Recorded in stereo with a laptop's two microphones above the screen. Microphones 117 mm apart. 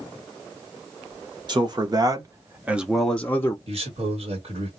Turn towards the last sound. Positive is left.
turn(degrees=-55)  # may be behind; listen again after turning